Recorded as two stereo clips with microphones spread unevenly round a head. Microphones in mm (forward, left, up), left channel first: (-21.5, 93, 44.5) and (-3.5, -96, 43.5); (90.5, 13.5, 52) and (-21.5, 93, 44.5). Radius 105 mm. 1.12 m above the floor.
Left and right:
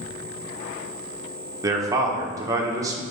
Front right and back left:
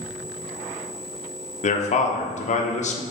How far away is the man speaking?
About 1.1 m.